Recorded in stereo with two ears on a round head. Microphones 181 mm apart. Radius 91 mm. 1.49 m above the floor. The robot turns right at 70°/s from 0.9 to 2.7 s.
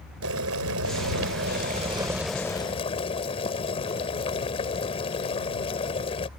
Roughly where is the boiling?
Right.